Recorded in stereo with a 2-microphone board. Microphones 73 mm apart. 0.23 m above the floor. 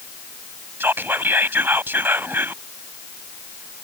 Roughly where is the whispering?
Right.